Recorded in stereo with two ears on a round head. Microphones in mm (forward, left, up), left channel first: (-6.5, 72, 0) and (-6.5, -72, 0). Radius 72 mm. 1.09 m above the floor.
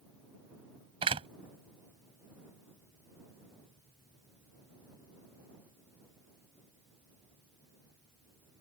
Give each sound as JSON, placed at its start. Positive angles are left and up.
{"t": 1.0, "sound": "a door slam", "side_deg": -35}